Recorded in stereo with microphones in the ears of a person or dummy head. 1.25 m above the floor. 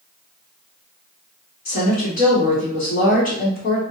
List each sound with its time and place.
1.6 s a woman speaking: 45° left (ahead or behind), 1.1 m